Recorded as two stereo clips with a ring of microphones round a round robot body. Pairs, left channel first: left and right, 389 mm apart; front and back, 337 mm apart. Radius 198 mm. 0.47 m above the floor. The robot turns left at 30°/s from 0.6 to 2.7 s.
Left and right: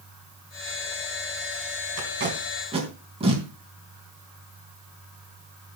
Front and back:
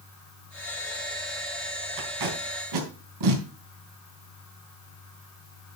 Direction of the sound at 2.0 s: 145° right.